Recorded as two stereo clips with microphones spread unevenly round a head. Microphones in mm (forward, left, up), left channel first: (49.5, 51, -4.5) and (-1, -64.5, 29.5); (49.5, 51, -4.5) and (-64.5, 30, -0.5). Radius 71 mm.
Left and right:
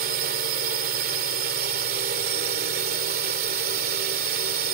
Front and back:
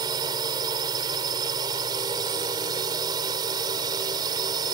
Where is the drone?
105° right.